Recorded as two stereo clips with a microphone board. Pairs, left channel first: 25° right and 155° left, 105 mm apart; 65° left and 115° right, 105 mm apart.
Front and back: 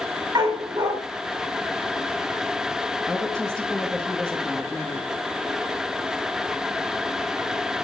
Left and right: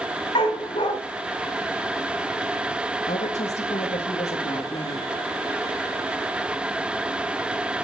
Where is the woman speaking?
75° left, 2 m.